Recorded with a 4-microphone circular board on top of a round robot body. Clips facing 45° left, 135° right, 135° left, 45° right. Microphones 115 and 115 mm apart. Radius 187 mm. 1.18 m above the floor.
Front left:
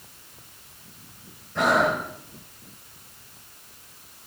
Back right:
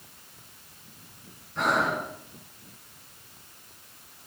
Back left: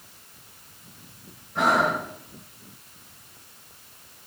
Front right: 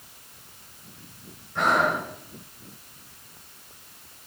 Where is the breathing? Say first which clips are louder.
Front left 5 dB, back left 1 dB; 50° left, 1.3 m.